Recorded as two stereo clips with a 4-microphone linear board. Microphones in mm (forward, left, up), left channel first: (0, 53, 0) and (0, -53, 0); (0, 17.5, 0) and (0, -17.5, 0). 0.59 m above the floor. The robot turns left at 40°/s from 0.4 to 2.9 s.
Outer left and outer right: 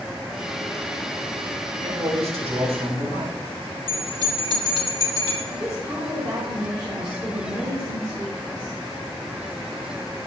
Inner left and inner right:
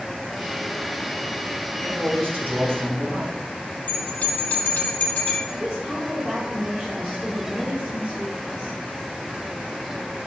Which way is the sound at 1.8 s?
65° right.